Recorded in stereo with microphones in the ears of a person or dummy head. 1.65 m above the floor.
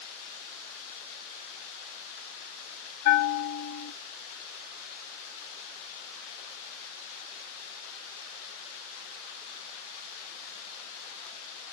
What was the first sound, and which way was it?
A bell, 50° left (ahead or behind).